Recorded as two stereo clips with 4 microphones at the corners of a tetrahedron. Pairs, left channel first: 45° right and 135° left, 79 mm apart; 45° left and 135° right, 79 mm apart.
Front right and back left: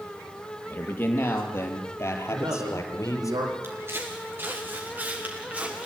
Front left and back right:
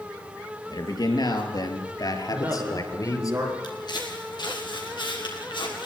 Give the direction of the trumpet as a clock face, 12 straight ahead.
I don't hear a trumpet.